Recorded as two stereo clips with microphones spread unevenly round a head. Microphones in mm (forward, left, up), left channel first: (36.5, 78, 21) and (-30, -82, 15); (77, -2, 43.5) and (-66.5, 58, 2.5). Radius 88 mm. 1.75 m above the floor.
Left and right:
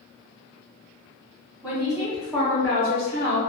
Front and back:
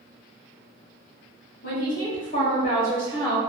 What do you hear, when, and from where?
1.6 s a woman speaking: 30° right, 1.5 m; by 3.4 s 65° left, 0.7 m